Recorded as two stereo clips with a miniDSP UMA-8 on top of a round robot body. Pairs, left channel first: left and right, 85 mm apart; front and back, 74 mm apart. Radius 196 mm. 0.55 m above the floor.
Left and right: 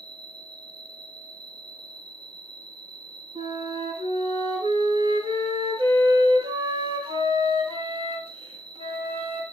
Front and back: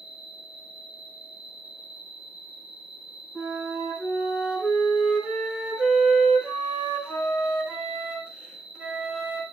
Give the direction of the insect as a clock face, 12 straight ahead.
4 o'clock.